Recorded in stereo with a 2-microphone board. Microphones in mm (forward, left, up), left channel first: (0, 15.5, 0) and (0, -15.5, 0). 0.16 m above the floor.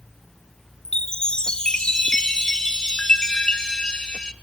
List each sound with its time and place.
0.8 s a chime: 30° left (ahead or behind), 0.9 m